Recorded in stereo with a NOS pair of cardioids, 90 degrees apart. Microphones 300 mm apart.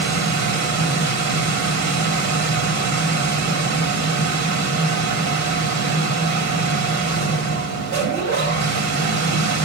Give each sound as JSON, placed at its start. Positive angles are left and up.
{"t": 0.0, "sound": "a machine running", "azimuth_deg": -65, "distance_m": 2.5}